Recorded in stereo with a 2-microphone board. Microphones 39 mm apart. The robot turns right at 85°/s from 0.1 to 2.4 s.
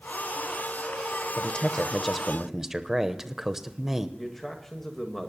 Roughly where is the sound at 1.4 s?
Left.